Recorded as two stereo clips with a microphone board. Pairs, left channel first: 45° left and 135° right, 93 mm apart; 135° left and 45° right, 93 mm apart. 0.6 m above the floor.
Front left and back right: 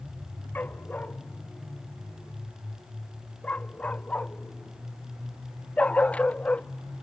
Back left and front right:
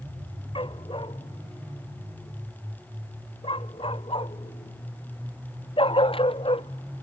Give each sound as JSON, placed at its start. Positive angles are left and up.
{"t": 0.6, "sound": "a dog barking", "azimuth_deg": 115}